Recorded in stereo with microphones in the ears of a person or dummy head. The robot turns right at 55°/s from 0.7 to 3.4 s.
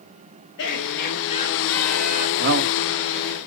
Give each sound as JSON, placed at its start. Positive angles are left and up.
{"t": 0.6, "sound": "laughter", "azimuth_deg": 110, "distance_m": 0.8}
{"t": 2.4, "sound": "a man speaking", "side_deg": -55, "distance_m": 0.8}